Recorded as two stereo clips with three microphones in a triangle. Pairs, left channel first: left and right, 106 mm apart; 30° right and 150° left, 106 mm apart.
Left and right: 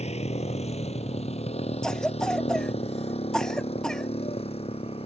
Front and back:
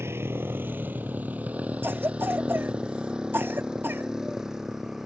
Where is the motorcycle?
85° left; by 5.1 s 65° left.